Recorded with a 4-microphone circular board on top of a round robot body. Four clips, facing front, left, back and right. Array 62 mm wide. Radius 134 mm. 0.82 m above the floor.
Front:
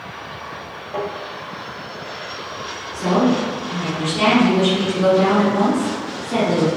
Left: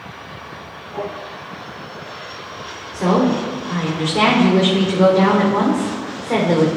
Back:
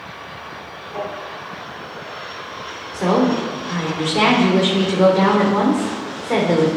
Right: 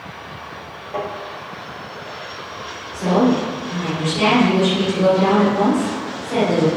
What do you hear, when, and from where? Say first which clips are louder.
0.9 s tapping: right 1 dB, front 2 dB; 45° right, 3.5 m
2.9 s a woman speaking: even, even; 130° left, 3 m